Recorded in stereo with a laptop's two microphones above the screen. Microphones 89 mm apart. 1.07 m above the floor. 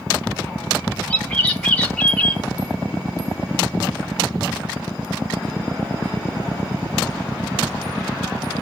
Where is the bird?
15° left (ahead or behind), 0.9 m.